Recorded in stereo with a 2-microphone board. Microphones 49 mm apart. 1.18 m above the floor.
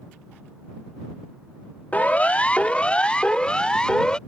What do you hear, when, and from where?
1.9 s a siren: 30° left (ahead or behind); by 4.2 s 15° left (ahead or behind)